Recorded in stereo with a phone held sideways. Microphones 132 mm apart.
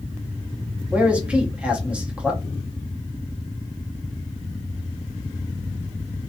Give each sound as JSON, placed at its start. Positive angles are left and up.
{"t": 0.9, "sound": "a man speaking", "side_deg": -10, "distance_m": 0.7}